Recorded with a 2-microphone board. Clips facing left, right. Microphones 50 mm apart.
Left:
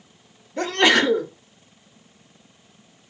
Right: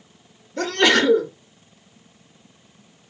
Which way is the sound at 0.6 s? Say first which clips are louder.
Even; 15° left (ahead or behind).